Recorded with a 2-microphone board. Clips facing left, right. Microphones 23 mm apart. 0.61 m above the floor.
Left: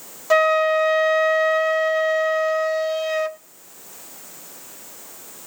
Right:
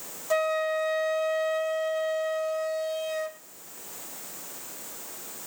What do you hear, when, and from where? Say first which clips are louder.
0.3 s a flute: left 9 dB; 45° left (ahead or behind), 0.6 m